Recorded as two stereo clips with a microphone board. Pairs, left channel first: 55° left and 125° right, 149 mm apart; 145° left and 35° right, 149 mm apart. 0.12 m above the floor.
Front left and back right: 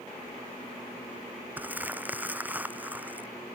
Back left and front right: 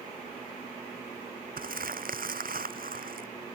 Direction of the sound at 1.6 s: 45° right.